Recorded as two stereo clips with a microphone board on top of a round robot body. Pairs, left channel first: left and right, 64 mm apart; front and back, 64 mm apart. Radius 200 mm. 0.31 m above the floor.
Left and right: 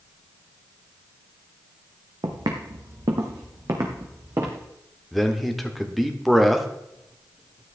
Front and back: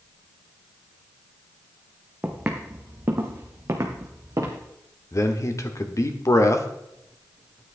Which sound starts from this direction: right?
Footsteps, at 2.2 s.